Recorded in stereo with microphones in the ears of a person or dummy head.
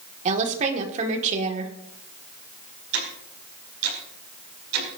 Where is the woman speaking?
35° right (ahead or behind), 2 m.